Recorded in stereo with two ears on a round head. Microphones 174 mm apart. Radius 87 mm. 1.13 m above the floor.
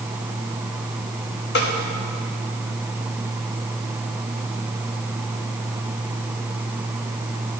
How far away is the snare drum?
About 1.4 m.